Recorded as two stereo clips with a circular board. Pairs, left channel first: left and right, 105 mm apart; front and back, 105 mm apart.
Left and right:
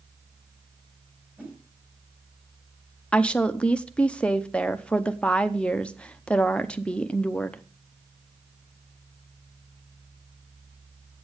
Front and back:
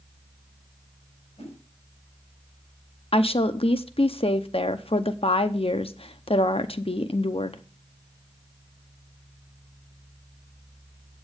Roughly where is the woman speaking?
Ahead.